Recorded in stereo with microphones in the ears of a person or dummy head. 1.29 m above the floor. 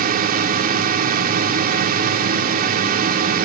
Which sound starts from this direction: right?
A drone, at 0.0 s.